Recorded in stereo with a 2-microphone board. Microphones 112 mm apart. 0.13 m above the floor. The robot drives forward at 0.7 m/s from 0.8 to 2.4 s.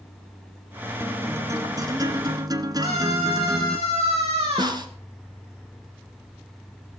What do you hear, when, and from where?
1.0 s a guitar: 25° right (ahead or behind), 1.5 m; by 3.8 s 35° right (ahead or behind), 1.0 m
2.8 s a scream: 65° right (ahead or behind), 7 m
4.6 s a snare drum: 40° right (ahead or behind), 1.4 m